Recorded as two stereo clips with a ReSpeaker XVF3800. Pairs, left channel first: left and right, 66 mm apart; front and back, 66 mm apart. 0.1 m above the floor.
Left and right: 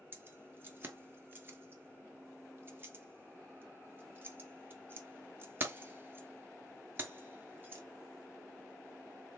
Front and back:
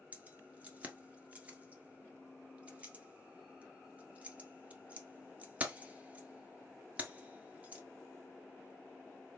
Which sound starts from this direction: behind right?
Keys jangling, at 0.1 s.